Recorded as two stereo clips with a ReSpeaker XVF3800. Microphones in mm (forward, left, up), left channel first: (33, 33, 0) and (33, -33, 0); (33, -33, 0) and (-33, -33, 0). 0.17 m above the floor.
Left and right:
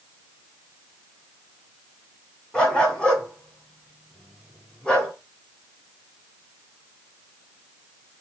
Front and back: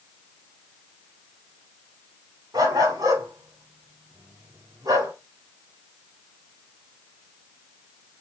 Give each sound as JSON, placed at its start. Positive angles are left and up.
{"t": 2.5, "sound": "a dog barking", "azimuth_deg": 170, "distance_m": 7.5}